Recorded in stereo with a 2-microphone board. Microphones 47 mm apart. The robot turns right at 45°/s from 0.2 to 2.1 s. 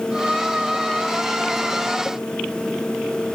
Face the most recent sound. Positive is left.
No sound to turn to.